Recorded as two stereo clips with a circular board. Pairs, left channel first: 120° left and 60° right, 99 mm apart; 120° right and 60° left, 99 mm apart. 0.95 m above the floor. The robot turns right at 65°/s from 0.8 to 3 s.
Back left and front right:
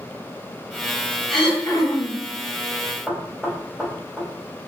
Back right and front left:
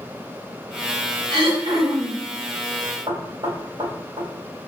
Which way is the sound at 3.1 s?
25° left.